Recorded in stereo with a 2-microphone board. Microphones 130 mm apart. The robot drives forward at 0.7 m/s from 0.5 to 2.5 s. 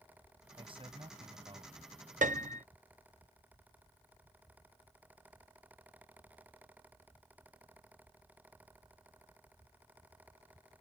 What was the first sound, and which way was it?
A man speaking, 45° right (ahead or behind).